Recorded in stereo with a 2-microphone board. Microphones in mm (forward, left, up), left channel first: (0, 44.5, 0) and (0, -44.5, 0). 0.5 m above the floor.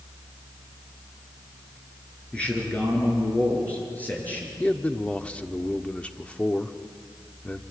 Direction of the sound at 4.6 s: 15° left (ahead or behind).